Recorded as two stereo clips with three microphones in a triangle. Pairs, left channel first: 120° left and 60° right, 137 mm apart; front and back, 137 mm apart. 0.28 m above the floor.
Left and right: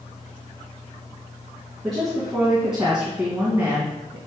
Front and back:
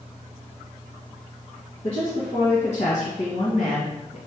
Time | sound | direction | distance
1.8 | a woman speaking | 30° left | 3 m